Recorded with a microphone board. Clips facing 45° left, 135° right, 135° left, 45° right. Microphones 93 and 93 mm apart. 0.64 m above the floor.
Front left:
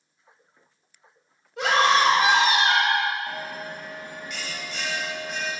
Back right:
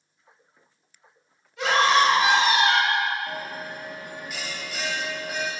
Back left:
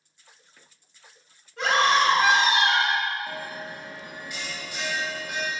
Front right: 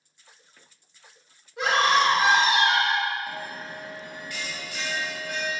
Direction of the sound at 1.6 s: 30° left.